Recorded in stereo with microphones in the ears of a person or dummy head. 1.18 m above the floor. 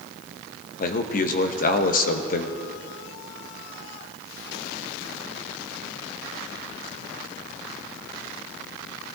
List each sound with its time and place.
0.8 s a man speaking: 45° left (ahead or behind), 0.7 m